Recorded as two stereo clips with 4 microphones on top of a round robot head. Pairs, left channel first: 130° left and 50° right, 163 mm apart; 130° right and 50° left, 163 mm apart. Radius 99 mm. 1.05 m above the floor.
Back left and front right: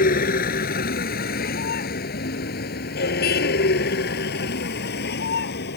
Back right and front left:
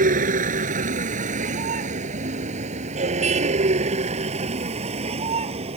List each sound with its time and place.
0.0 s a vehicle: 90° left; by 5.8 s 105° left